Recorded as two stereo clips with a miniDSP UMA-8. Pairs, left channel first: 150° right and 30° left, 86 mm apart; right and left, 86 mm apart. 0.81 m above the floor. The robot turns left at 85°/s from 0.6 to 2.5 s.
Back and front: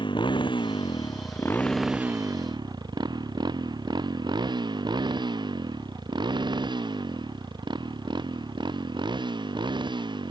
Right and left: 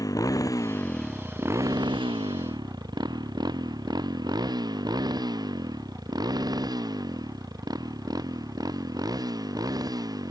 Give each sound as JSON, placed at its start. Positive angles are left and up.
{"t": 0.0, "sound": "a motorcycle", "azimuth_deg": -135}